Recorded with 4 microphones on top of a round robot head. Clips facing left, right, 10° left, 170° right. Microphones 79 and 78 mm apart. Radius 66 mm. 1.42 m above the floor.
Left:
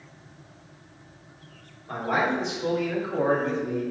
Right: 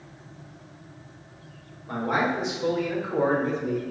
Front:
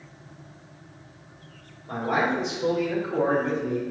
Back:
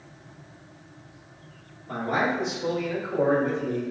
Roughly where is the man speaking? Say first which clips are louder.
Even, front 1 dB; ahead.